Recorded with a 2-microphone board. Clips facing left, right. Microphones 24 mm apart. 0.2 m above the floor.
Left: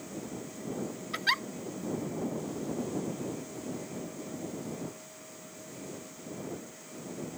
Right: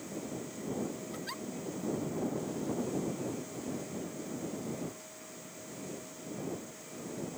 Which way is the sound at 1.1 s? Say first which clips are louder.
Left 11 dB; 70° left (ahead or behind).